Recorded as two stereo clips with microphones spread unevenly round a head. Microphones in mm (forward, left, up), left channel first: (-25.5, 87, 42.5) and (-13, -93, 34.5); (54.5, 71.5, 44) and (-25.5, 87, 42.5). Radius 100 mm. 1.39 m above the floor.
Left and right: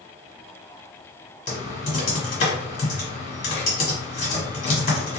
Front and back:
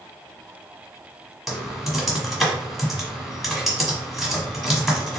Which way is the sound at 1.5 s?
75° left.